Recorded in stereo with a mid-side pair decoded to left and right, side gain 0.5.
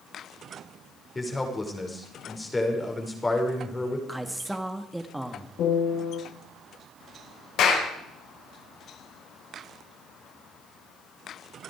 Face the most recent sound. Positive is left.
turn(degrees=70)